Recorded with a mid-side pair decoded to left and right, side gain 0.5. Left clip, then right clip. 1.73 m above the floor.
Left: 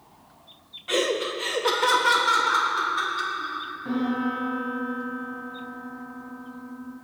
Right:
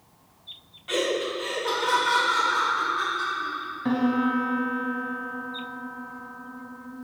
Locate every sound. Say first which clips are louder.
0.9 s laughter: left 1 dB; 20° left, 0.6 m; by 3.6 s 75° left, 1.9 m
3.9 s a piano: right 4 dB; 65° right, 1.0 m